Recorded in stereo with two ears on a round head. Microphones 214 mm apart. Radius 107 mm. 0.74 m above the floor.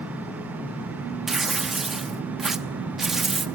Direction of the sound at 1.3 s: Centre (ahead or behind).